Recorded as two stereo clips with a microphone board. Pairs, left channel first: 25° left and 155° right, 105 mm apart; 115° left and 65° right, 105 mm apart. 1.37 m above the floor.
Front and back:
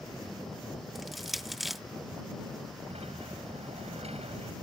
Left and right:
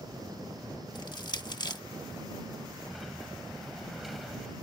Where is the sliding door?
155° right.